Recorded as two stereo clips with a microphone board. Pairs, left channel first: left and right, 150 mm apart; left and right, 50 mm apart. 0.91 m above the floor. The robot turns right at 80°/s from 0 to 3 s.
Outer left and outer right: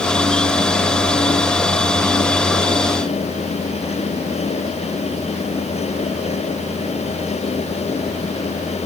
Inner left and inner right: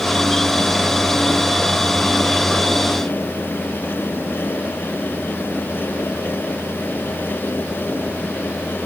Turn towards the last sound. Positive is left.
No sound to turn to.